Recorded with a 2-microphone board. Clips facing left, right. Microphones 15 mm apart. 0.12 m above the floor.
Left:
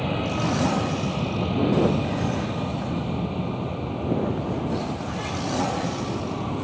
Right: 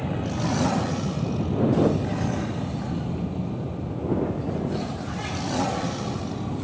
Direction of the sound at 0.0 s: 35° left (ahead or behind).